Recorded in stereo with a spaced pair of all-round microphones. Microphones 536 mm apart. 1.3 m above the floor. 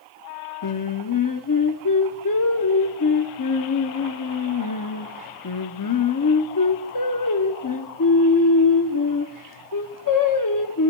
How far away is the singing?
About 0.7 m.